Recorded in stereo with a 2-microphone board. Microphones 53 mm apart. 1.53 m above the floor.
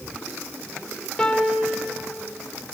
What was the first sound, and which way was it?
A piano, 10° left (ahead or behind).